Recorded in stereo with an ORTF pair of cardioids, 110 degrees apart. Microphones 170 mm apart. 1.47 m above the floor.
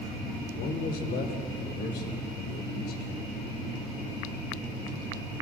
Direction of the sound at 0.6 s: 65° left.